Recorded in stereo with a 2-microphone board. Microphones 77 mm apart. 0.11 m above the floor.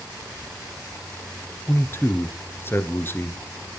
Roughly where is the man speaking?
Left.